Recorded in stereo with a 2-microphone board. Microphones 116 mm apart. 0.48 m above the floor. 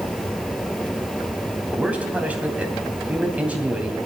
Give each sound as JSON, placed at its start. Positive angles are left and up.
{"t": 1.7, "sound": "a man speaking", "side_deg": -10, "distance_m": 3.0}